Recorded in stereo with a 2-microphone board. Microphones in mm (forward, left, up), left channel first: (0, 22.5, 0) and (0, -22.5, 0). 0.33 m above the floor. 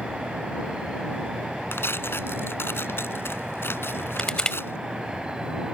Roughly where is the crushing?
Centre.